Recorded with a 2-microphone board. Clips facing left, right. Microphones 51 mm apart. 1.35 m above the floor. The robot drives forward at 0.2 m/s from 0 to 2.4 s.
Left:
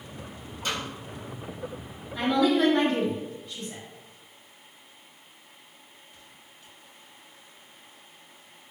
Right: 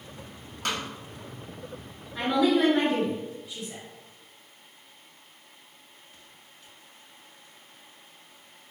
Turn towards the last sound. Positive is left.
turn(degrees=-10)  # may be behind; listen again after turning